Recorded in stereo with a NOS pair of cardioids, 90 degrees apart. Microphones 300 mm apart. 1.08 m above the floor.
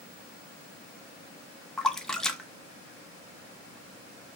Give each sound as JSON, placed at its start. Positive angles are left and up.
{"t": 1.8, "sound": "a splash", "azimuth_deg": 0, "distance_m": 0.9}